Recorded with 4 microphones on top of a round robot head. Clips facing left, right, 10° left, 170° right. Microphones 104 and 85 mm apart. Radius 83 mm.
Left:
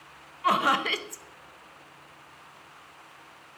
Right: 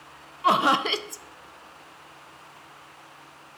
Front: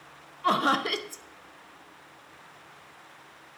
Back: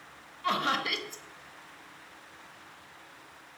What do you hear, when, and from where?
0.4 s laughter: 30° right, 0.7 m